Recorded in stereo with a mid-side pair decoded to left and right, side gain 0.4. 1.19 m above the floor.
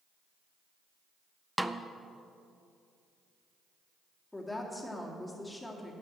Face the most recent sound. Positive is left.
turn(degrees=15)